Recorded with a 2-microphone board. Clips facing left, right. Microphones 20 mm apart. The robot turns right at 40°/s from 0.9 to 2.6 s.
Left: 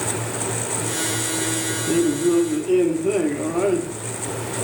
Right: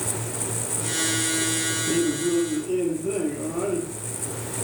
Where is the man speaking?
20° left (ahead or behind), 0.7 m; by 4.0 s 35° left (ahead or behind), 0.7 m.